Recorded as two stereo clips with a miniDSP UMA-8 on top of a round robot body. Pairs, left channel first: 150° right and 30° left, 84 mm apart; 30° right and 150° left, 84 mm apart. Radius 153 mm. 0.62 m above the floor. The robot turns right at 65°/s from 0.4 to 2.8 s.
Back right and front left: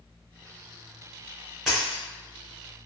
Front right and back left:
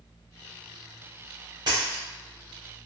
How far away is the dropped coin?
About 0.5 m.